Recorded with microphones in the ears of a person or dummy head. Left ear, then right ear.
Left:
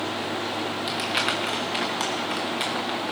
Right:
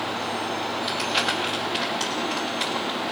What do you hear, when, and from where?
0.9 s crumpling: 20° left (ahead or behind), 1.3 m